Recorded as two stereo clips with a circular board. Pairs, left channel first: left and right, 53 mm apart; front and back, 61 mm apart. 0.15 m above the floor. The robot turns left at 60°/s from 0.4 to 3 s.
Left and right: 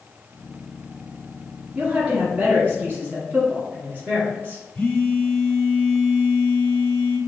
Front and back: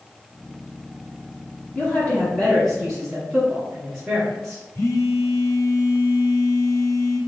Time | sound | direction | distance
1.8 | a woman speaking | 20° right | 1.6 m
4.8 | a phone buzzing | 20° left | 1.1 m